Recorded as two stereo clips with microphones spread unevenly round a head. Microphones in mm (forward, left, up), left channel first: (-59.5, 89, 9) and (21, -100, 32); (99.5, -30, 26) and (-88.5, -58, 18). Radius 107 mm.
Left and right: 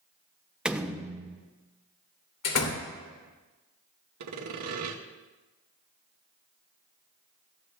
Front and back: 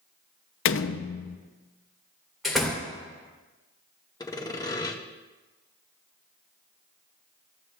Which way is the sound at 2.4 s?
100° left.